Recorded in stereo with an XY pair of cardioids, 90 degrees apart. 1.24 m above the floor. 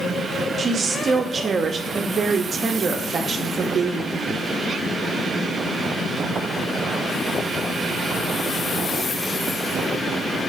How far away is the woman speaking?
About 0.5 m.